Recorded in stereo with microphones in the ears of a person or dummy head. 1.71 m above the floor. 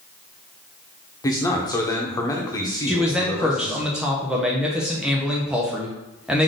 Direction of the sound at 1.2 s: 15° left (ahead or behind).